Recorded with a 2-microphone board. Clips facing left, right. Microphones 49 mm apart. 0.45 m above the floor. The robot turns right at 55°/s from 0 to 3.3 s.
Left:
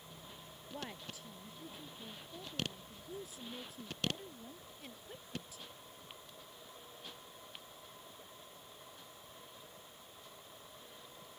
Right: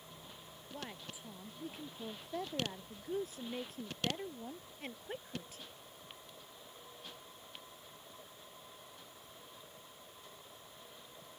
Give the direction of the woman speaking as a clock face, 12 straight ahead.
6 o'clock.